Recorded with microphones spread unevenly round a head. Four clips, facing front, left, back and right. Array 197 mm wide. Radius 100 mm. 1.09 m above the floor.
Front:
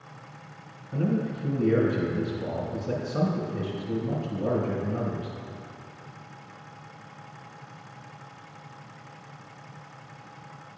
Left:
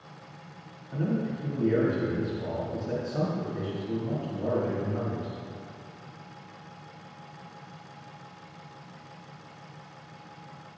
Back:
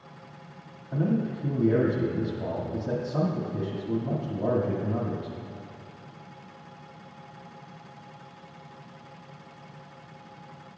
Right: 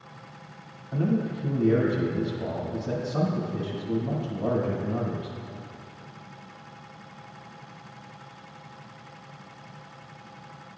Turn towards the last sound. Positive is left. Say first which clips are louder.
# right 3 dB, even
turn(degrees=-160)